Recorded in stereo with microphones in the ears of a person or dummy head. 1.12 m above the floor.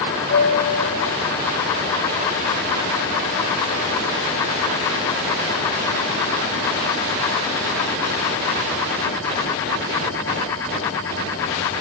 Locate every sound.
0.3 s a piano: 55° left (ahead or behind), 0.8 m